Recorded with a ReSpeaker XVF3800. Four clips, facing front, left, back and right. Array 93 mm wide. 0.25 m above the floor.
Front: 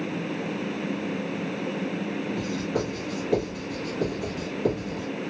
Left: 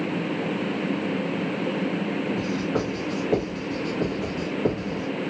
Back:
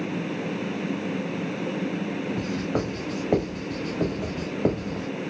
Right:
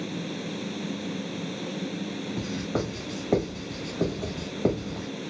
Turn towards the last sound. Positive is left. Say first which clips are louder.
# left 4 dB, back 1 dB
turn(degrees=-170)